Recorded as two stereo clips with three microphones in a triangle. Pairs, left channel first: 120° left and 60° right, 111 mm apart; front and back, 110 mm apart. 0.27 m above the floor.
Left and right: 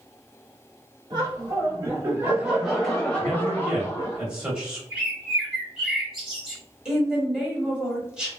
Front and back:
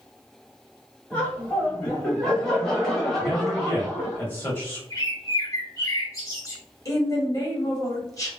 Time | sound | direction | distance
1.1 | laughter | 75° right | 1.3 m
3.2 | a man speaking | 5° left | 0.9 m
4.9 | a bird | 25° left | 1.0 m
6.8 | a woman speaking | 15° left | 1.1 m